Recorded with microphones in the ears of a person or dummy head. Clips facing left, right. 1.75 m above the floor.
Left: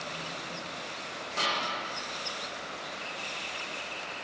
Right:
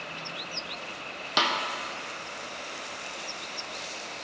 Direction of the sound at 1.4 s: 75° right (ahead or behind).